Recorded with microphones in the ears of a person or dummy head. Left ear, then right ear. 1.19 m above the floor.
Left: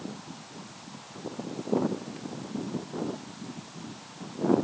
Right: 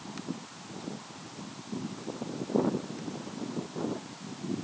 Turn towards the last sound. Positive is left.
No sound to turn to.